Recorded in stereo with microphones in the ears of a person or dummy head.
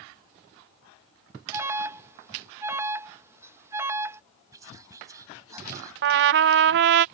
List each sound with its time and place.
1.5 s an alarm: 15° right (ahead or behind)
4.5 s whispering: 15° right (ahead or behind)
6.0 s a trumpet: 55° right (ahead or behind)